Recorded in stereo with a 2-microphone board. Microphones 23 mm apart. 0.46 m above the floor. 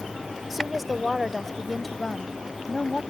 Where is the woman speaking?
10° right (ahead or behind); by 3.0 s 25° left (ahead or behind).